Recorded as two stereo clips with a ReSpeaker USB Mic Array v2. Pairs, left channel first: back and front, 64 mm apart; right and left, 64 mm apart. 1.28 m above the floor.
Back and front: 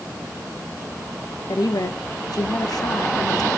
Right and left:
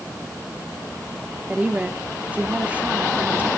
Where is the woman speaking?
160° left, 1.1 m.